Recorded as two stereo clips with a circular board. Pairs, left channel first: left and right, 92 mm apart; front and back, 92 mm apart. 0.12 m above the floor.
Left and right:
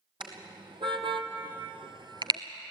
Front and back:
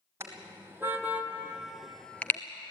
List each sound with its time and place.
0.2 s a car horn: 120° right, 2.5 m; by 2.4 s 65° right, 1.0 m